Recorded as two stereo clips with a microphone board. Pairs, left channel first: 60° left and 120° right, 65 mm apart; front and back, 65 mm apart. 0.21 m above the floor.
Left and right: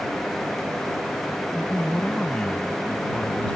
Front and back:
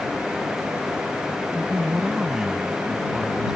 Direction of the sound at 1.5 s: 110° left.